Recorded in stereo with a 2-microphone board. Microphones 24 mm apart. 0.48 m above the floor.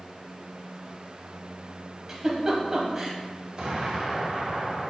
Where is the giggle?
20° right (ahead or behind), 1.7 m.